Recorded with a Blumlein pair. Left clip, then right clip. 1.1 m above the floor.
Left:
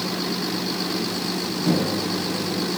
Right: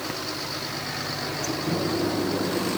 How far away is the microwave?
About 1.5 m.